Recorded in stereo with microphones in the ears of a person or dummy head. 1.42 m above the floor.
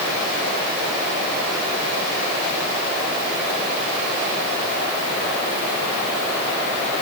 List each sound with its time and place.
Only background noise.